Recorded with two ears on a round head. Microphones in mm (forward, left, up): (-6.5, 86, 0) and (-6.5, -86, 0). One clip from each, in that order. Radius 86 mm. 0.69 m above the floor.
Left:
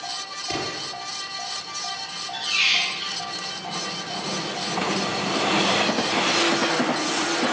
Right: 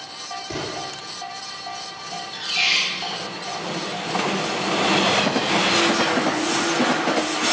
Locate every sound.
0.5 s an explosion: 65° left (ahead or behind), 5.5 m
2.0 s a squeak: 5° left (ahead or behind), 6 m